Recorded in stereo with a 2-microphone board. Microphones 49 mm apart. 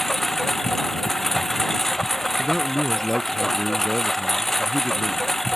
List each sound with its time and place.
0.0 s a lawn mower: 5° left (ahead or behind)
2.4 s a man speaking: 5° left (ahead or behind)